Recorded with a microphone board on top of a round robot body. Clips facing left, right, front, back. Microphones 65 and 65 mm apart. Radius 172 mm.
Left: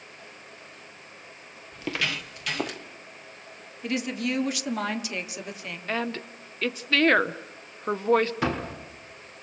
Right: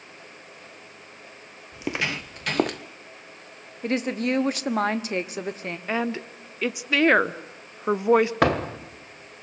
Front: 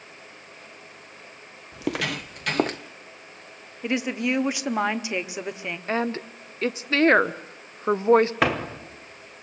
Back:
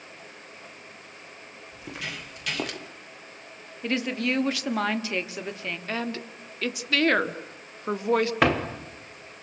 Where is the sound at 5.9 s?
25° right, 1.1 m.